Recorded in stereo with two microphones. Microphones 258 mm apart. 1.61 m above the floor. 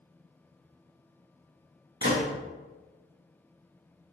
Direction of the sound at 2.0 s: 50° right (ahead or behind).